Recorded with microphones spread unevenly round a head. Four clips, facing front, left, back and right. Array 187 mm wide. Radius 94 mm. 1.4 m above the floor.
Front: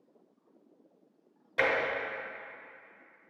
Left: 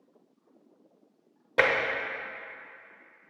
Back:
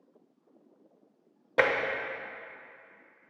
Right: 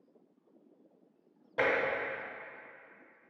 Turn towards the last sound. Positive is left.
turn(degrees=135)